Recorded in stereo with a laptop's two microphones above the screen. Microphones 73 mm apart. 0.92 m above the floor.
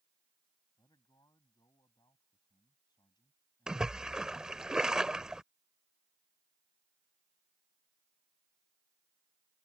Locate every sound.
0.8 s a man speaking: 70° left (ahead or behind); by 4.7 s 85° left
3.7 s a splash: 10° right (ahead or behind)